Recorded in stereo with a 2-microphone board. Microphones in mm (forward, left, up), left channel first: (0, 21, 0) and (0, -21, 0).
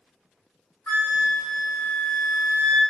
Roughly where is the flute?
Left.